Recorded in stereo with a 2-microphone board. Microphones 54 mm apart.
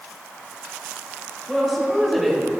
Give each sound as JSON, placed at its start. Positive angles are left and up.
{"t": 1.5, "sound": "a woman speaking", "side_deg": 0, "distance_m": 4.5}